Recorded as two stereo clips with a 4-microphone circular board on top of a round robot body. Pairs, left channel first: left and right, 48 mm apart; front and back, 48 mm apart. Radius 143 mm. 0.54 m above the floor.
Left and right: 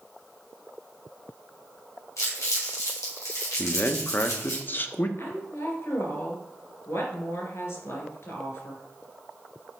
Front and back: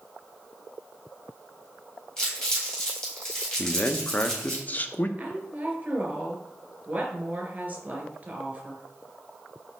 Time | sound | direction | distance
2.2 | crumpling | 75° left | 3.5 m
3.6 | a man speaking | 50° left | 0.9 m
5.2 | a woman speaking | 120° left | 3 m